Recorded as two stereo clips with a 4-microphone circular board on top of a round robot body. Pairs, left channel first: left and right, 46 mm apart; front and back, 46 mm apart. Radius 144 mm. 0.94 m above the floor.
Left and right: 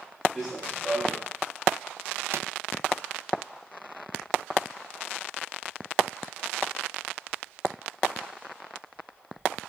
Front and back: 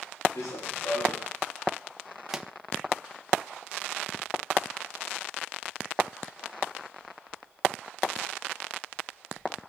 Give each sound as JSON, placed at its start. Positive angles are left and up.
{"t": 0.3, "sound": "running footsteps", "azimuth_deg": 5, "distance_m": 7.5}
{"t": 2.3, "sound": "a pop", "azimuth_deg": -100, "distance_m": 1.5}